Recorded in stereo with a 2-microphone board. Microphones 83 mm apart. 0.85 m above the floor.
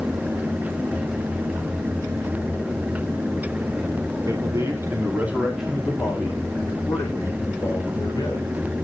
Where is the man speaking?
40° right (ahead or behind), 2.5 m; by 8.5 s 45° left (ahead or behind), 4.5 m.